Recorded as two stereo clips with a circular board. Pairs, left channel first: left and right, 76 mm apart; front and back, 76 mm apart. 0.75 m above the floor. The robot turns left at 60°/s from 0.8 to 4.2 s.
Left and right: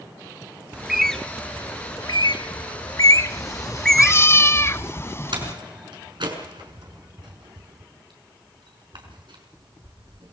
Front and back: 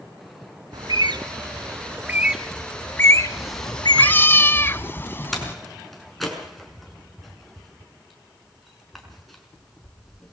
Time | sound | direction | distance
0.7 | a bird | 170° right | 1.1 m
3.3 | a cat meowing | 105° left | 0.8 m
5.3 | a door slam | 90° right | 6 m